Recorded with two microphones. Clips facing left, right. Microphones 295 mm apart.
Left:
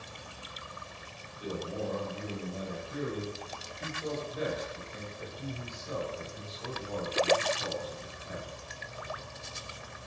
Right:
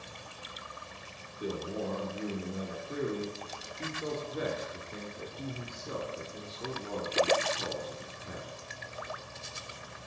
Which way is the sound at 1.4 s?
60° right (ahead or behind).